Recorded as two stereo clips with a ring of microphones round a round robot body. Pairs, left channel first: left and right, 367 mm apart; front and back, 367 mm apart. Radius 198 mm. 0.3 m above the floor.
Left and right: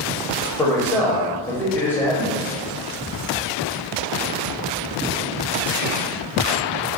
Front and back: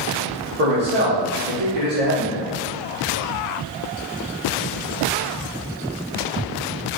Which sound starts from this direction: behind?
A man speaking, at 0.6 s.